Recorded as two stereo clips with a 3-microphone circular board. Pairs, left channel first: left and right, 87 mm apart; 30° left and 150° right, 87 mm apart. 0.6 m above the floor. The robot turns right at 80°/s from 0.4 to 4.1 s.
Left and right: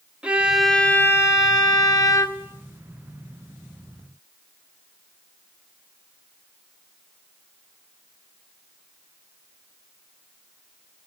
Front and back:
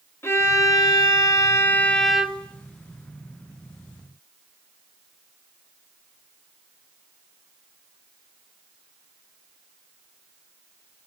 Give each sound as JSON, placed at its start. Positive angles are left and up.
{"t": 0.2, "sound": "a violin", "azimuth_deg": -15, "distance_m": 1.1}